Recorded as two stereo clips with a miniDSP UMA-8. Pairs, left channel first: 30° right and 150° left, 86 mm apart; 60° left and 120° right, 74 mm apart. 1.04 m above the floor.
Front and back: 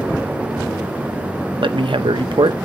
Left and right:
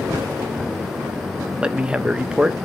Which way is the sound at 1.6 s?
160° left.